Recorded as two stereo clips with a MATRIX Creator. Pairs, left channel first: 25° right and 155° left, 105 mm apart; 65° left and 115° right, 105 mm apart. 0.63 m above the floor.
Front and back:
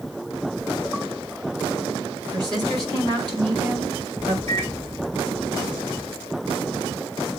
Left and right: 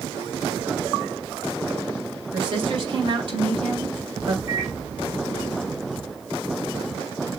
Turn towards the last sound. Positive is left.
turn(degrees=-170)